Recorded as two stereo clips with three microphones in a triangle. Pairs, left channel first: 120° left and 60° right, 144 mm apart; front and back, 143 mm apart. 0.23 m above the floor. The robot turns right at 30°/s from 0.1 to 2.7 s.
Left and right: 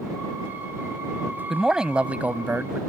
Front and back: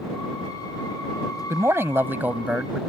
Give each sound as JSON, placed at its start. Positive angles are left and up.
{"t": 1.5, "sound": "a man speaking", "azimuth_deg": -145}